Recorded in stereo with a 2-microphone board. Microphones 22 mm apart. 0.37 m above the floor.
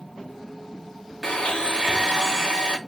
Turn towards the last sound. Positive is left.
turn(degrees=45)  # may be behind; listen again after turning